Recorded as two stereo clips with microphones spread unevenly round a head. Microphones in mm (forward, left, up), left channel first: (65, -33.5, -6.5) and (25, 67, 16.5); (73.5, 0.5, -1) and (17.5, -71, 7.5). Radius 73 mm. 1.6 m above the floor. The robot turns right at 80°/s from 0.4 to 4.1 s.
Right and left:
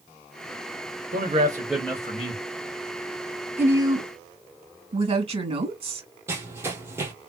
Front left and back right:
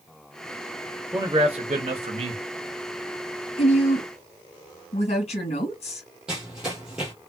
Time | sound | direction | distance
1.1 | a man speaking | 150° left | 1.4 m
3.6 | a woman speaking | 40° left | 2.5 m
6.3 | running footsteps | 160° left | 2 m